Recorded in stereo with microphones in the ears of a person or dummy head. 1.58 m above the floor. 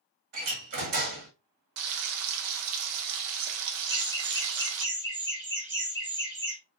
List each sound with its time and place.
0.3 s a door slam: 45° right (ahead or behind), 2.5 m
1.8 s frying: 70° right (ahead or behind), 0.9 m
3.9 s laughter: 15° left (ahead or behind), 2 m